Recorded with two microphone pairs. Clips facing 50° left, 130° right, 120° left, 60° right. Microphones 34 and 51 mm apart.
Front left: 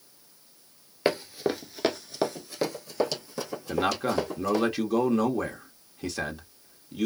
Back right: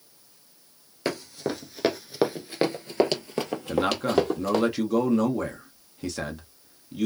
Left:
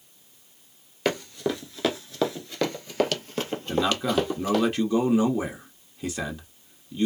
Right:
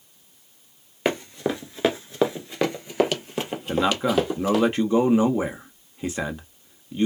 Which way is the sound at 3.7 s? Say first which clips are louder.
Back right 3 dB, right 3 dB; 30° right.